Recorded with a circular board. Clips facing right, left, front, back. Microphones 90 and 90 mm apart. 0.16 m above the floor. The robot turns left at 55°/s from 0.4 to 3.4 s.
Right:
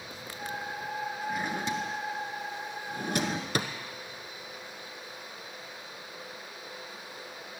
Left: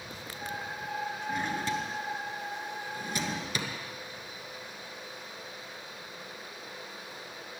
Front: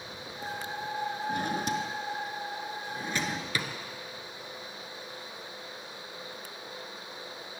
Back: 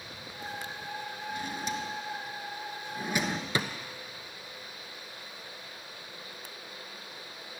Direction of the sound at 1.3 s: Straight ahead.